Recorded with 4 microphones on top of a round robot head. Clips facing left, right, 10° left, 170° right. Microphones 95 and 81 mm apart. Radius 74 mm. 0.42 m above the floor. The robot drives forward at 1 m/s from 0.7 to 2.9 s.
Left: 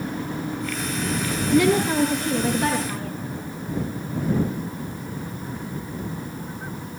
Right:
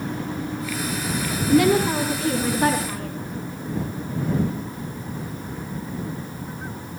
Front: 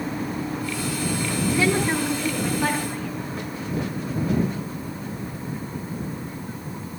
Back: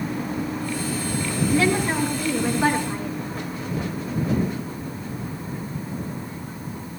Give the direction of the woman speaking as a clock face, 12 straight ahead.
2 o'clock.